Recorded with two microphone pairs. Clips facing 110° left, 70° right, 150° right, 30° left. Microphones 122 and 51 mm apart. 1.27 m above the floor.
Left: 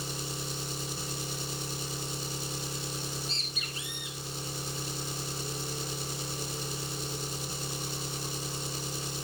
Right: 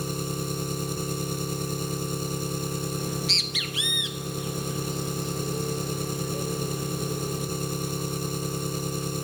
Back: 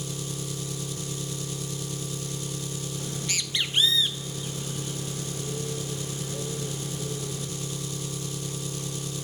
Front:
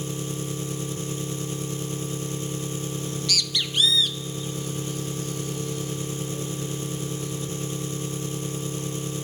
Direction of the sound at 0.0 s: 25° right.